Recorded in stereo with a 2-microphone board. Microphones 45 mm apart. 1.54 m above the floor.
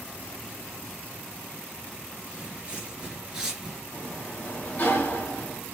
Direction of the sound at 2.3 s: 30° right (ahead or behind).